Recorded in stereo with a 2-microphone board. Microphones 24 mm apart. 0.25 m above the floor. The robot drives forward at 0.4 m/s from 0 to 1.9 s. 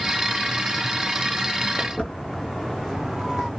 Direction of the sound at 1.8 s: 20° left (ahead or behind).